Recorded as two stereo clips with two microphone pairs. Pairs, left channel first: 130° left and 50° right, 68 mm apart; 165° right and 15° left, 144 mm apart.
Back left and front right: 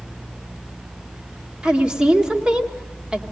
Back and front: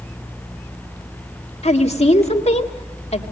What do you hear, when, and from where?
1.6 s a woman speaking: 125° right, 1.8 m